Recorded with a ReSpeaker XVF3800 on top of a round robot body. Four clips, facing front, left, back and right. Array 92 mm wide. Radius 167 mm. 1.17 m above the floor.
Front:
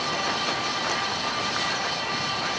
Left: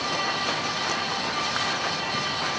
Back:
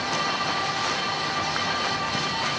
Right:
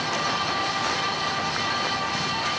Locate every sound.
Only background noise.